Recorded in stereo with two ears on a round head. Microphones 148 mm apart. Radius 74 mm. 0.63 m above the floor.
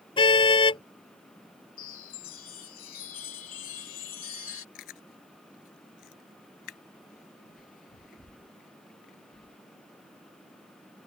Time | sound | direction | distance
0.2 | a car horn | 30° left (ahead or behind) | ?
1.8 | a chime | 55° left (ahead or behind) | ?
4.8 | chewing | 60° left (ahead or behind) | ?